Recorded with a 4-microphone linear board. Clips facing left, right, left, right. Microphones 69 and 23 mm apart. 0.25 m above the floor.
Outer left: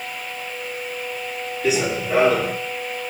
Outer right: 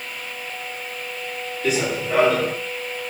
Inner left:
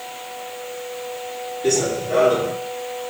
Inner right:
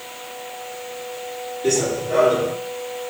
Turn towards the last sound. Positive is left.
turn(degrees=0)  # may be behind; listen again after turning